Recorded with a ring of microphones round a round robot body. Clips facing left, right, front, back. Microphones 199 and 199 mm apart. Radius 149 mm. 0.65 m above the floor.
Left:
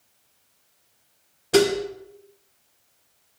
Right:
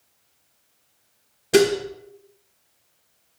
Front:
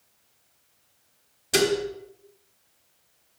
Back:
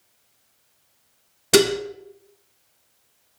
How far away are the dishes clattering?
About 1.1 m.